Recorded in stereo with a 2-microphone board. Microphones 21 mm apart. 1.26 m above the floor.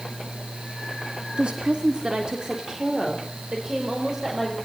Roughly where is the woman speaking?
Right.